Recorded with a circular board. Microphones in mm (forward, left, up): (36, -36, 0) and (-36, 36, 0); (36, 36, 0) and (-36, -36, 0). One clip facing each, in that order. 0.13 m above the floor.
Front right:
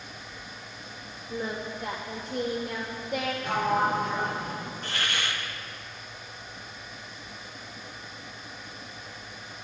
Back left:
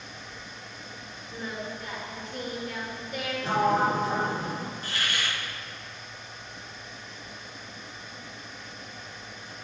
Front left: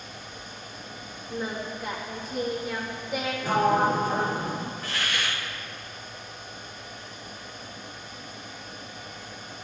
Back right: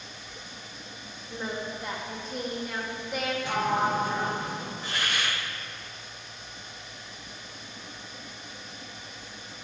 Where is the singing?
40° right, 3 m.